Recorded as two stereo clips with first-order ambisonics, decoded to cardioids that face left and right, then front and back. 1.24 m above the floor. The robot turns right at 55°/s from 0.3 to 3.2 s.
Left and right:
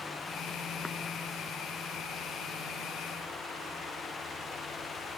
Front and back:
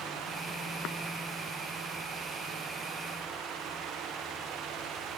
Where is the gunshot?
I don't hear a gunshot.